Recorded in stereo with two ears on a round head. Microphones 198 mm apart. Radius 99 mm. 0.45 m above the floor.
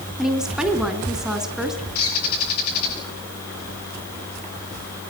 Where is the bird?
70° left (ahead or behind), 10 m.